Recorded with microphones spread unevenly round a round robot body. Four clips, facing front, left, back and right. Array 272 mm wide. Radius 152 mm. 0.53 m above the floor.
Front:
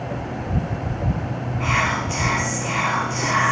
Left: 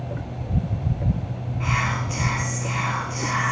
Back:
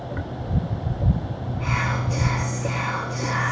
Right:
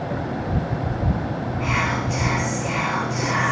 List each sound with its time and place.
1.6 s whispering: 20° right, 0.8 m